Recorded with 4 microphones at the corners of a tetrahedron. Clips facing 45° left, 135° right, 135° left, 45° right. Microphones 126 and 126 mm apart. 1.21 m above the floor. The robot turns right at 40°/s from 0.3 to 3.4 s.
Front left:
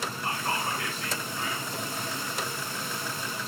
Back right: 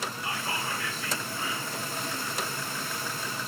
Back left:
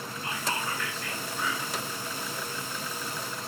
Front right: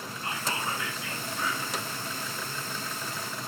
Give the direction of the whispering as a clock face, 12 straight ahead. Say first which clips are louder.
Front left 5 dB, even; 12 o'clock.